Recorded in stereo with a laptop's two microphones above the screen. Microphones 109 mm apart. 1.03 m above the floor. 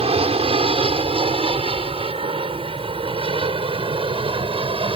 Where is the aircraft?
60° right (ahead or behind); by 5.0 s 55° right (ahead or behind).